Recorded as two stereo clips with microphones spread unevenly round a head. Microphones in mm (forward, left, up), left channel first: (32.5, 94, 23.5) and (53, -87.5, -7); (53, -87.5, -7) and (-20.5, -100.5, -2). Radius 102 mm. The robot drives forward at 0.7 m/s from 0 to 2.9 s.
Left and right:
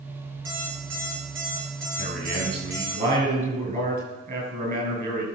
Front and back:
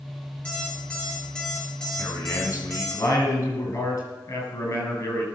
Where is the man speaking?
40° right, 8 m.